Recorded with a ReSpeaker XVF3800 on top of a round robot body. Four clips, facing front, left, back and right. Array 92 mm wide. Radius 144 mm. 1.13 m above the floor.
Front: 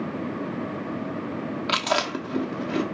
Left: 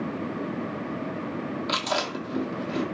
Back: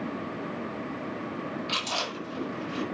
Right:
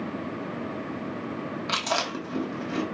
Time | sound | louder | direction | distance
1.7 | chewing | right 1 dB, front 12 dB | 15° right | 1.0 m